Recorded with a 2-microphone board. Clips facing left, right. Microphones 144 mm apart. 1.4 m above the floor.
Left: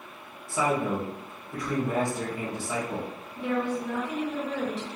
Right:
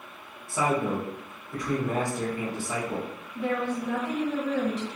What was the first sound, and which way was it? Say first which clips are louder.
A man speaking: even; centre (ahead or behind).